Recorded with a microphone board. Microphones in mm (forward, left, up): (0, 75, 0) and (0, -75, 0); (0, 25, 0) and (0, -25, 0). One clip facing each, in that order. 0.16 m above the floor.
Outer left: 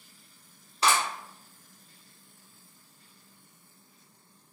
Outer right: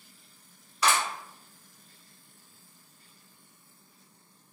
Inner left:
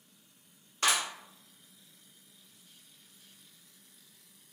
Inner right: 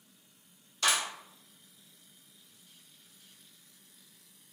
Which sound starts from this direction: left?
A clap, at 0.8 s.